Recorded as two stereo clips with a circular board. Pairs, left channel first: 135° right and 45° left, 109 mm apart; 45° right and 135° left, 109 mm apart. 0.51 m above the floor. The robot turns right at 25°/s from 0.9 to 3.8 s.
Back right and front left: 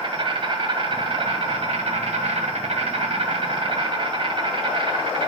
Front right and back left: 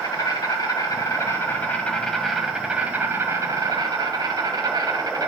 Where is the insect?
10° left, 0.9 m; by 5.3 s 80° left, 0.9 m.